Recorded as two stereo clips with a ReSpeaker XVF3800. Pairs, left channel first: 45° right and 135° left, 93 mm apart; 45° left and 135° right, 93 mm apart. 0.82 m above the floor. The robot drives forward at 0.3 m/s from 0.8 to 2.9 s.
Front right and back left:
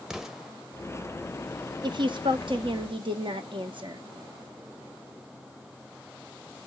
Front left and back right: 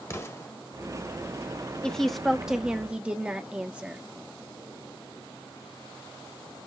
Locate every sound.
0.1 s an explosion: 55° left, 0.6 m
1.8 s a woman speaking: 125° left, 0.5 m; by 4.0 s 150° left, 0.7 m